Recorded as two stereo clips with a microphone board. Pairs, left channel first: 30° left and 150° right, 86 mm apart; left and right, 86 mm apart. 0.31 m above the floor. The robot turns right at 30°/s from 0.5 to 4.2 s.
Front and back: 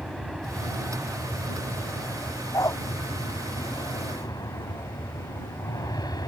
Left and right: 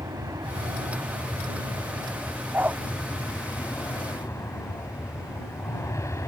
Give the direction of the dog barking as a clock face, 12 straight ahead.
1 o'clock.